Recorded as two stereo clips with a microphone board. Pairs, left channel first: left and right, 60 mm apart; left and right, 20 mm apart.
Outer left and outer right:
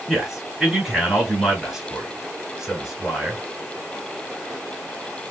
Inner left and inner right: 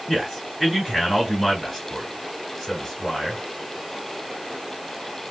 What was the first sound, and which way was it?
A man speaking, 5° right (ahead or behind).